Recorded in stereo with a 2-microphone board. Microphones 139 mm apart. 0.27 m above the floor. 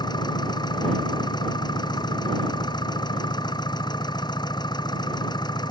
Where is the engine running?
30° left (ahead or behind).